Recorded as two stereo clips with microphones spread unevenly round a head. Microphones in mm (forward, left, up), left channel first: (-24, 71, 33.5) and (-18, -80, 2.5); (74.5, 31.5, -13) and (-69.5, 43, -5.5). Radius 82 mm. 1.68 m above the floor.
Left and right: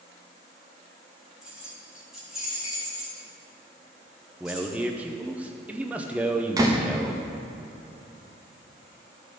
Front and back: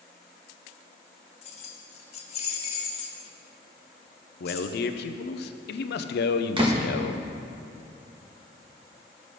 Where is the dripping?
No dripping in this recording.